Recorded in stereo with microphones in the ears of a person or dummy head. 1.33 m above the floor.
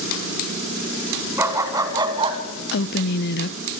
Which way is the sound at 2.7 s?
55° left (ahead or behind).